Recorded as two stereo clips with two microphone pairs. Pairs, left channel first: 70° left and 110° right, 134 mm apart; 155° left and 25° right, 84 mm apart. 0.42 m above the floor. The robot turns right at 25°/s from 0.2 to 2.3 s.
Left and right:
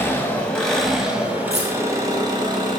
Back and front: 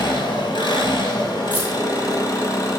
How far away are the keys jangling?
About 3 m.